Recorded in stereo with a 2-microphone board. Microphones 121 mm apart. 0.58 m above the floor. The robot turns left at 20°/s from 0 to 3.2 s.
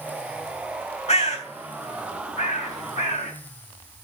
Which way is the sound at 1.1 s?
60° left (ahead or behind).